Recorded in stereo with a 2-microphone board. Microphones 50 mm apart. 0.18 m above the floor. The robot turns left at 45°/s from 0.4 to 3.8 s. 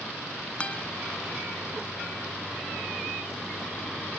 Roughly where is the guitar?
Left.